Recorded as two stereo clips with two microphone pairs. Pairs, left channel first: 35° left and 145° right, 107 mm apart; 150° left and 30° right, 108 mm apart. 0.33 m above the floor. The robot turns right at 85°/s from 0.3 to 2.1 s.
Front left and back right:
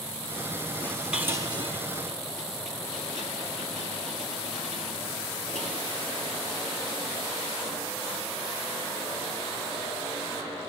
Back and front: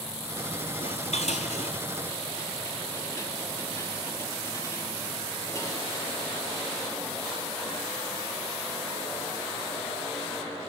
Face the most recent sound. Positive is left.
turn(degrees=-145)